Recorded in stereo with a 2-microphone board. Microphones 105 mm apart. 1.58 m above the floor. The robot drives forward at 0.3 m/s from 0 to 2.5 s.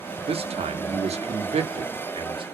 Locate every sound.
0.3 s a man speaking: 65° right (ahead or behind), 0.6 m; by 2.4 s 55° right (ahead or behind), 0.7 m